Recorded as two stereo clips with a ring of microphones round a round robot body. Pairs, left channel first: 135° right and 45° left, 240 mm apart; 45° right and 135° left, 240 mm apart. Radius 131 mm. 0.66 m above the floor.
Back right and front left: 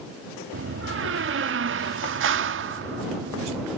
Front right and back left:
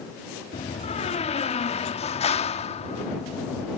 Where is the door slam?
15° left.